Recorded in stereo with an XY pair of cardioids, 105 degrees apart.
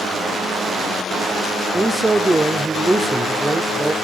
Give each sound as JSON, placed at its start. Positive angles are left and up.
{"t": 1.7, "sound": "a man speaking", "azimuth_deg": -15, "distance_m": 0.5}